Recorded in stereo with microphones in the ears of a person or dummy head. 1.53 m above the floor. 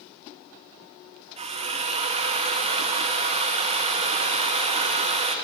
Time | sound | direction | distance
1.4 | a drill | 40° right (ahead or behind) | 1.6 m